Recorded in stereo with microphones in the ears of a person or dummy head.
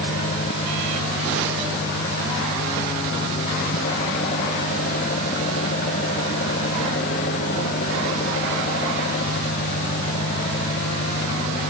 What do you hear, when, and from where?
0.0 s an engine running: 45° left (ahead or behind)